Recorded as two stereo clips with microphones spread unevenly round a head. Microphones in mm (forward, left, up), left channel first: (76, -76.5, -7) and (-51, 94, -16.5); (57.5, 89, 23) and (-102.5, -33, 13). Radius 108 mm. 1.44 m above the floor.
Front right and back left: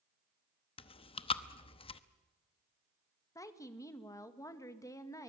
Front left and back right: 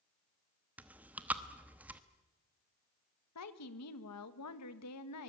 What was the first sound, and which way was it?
Chewing, 60° right.